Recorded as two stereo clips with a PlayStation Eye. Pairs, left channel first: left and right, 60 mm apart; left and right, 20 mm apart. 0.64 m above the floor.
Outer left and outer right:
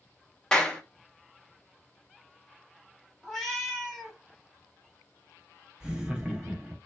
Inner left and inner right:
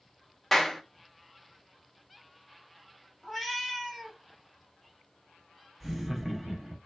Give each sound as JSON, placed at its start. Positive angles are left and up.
{"t": 0.5, "sound": "a clap", "side_deg": 10, "distance_m": 0.6}
{"t": 3.2, "sound": "a cat meowing", "side_deg": 0, "distance_m": 0.9}
{"t": 5.8, "sound": "laughter", "side_deg": -10, "distance_m": 0.7}